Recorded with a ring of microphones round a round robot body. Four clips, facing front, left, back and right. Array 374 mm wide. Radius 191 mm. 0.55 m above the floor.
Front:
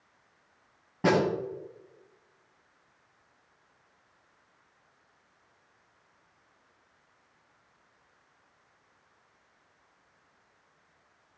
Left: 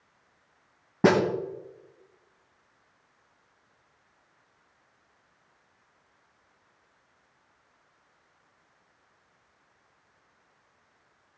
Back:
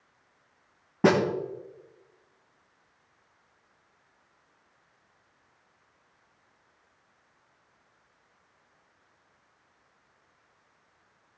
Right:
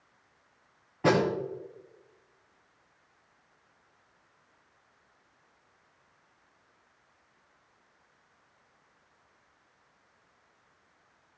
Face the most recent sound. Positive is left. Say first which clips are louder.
# left 4 dB, back 3 dB
turn(degrees=115)